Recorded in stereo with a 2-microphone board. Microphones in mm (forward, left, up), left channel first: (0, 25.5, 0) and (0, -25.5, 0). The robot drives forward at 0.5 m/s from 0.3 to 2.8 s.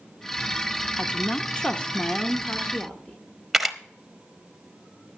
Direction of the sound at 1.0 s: 25° left (ahead or behind).